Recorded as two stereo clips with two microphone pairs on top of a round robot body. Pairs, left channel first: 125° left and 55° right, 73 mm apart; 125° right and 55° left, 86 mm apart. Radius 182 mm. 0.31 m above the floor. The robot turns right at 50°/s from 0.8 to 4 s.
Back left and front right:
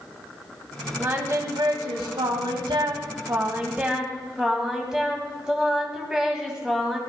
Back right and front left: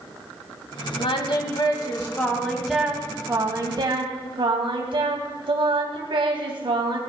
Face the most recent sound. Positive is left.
turn(degrees=30)